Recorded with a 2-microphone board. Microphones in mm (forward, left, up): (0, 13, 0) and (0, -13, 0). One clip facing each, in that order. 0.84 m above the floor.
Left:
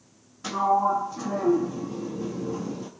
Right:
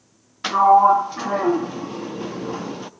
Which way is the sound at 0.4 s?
60° right (ahead or behind).